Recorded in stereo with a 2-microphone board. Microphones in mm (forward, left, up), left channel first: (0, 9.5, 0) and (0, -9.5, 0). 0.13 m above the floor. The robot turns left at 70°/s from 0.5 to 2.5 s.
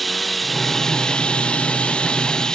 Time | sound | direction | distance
0.0 | running water | straight behind | ?